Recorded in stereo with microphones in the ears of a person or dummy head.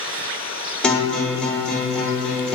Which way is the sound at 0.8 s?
5° left (ahead or behind).